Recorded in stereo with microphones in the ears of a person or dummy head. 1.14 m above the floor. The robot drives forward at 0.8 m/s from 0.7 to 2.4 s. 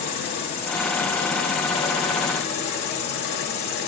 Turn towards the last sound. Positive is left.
turn(degrees=30)  # may be behind; listen again after turning